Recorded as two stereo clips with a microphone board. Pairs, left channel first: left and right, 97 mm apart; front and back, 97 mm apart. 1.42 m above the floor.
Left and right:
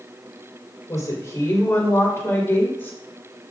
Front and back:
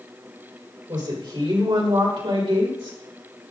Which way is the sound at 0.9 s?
145° left.